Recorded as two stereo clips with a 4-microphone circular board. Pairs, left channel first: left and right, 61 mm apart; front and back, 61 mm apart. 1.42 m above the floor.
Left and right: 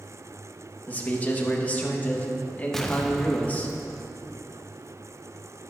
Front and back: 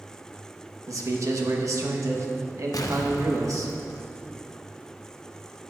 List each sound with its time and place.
0.9 s a man speaking: 155° left, 1.2 m
2.7 s an explosion: 5° left, 0.6 m